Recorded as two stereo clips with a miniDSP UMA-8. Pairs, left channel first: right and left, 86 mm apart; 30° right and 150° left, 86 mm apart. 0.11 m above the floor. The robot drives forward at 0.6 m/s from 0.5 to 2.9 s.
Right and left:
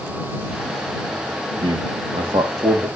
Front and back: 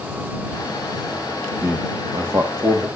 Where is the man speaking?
90° left, 4 m; by 2.9 s 105° left, 4 m.